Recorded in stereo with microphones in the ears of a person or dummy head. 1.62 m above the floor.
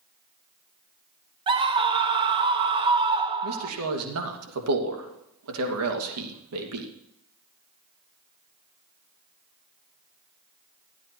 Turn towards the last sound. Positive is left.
turn(degrees=-85)